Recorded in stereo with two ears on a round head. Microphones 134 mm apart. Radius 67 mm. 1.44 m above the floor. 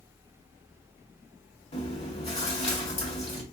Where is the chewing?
40° left (ahead or behind), 1.7 m.